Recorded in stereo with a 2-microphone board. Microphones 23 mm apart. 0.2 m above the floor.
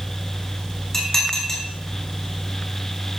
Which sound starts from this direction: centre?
Dishes clattering, at 0.9 s.